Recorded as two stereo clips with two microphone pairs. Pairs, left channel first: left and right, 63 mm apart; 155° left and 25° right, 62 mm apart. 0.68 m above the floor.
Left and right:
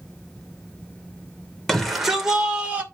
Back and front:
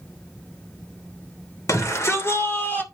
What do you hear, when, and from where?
1.7 s a shout: 175° left, 2.5 m; by 2.8 s 155° right, 2.5 m